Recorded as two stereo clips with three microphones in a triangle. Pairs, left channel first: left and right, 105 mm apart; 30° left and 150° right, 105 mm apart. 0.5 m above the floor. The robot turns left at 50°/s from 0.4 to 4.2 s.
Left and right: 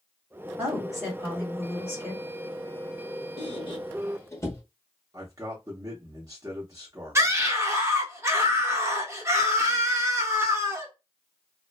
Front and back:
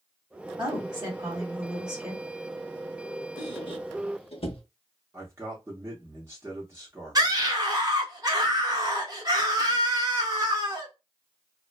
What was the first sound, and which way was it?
A woman speaking, 160° right.